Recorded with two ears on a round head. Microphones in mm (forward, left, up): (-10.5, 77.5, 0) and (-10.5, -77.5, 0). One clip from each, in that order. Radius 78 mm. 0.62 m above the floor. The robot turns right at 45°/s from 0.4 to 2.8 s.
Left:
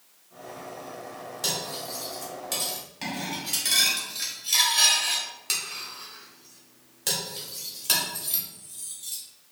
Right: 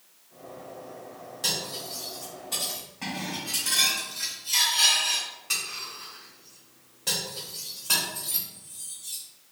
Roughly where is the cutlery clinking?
Centre.